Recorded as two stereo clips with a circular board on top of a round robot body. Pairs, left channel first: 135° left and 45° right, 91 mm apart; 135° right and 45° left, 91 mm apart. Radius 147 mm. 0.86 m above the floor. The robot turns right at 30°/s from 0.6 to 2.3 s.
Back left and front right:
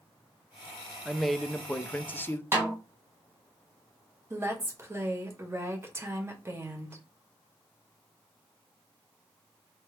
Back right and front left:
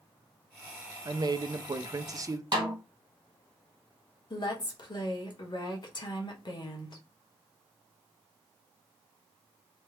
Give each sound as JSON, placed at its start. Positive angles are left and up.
{"t": 1.1, "sound": "a man speaking", "azimuth_deg": 40, "distance_m": 0.6}
{"t": 2.5, "sound": "a snare drum", "azimuth_deg": 15, "distance_m": 1.4}
{"t": 4.3, "sound": "a woman speaking", "azimuth_deg": -105, "distance_m": 1.3}